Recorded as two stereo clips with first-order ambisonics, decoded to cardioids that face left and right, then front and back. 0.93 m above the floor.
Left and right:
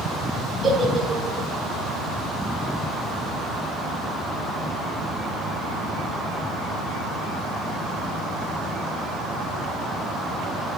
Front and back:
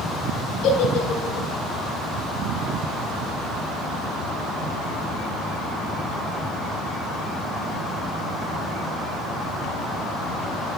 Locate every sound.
0.6 s a giggle: 15° right, 4 m